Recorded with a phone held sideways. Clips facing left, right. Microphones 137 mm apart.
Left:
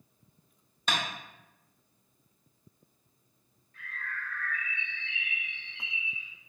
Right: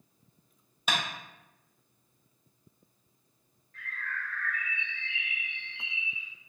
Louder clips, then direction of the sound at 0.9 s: Even; 5° right (ahead or behind).